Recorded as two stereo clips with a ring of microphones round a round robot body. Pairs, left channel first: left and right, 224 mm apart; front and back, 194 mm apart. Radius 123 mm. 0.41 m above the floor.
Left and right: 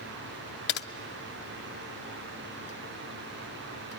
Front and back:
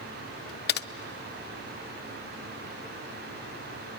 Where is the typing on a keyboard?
40° left, 0.6 m.